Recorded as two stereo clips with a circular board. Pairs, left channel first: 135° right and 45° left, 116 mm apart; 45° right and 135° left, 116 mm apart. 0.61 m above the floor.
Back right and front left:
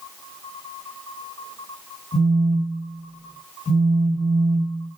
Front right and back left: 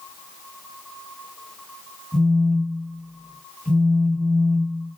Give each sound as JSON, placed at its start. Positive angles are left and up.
{"t": 2.1, "sound": "a phone buzzing", "azimuth_deg": -140, "distance_m": 1.4}